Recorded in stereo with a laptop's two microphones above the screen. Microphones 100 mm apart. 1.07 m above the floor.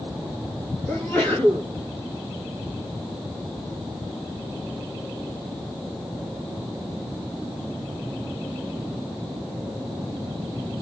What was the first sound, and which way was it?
A sneeze, 5° left (ahead or behind).